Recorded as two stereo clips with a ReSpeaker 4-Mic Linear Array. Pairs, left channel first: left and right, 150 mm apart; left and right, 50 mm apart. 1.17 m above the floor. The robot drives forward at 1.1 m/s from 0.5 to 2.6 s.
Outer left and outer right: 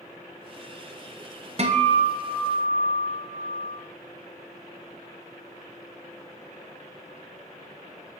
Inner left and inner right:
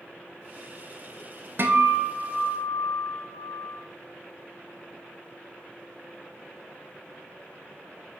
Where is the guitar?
45° right (ahead or behind), 0.7 m; by 3.8 s 25° right (ahead or behind), 1.1 m.